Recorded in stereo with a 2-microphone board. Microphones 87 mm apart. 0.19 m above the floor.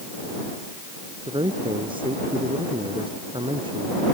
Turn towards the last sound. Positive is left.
turn(degrees=-85)